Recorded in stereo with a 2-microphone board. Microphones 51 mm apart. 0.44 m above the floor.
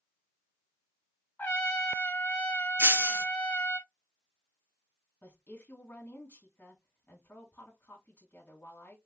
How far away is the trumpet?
About 1.8 m.